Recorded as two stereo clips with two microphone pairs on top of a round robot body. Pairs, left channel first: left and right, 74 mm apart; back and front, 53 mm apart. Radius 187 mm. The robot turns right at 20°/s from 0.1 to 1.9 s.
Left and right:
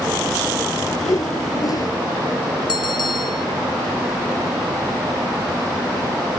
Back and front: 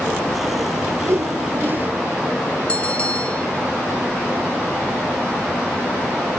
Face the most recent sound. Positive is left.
turn(degrees=115)